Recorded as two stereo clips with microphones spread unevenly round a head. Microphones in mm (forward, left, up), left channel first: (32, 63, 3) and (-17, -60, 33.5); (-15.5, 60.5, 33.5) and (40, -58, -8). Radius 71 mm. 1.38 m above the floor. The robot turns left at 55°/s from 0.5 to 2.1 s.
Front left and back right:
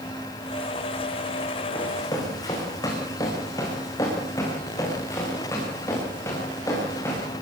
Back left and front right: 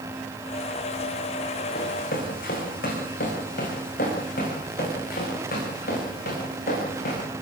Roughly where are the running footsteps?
Behind left.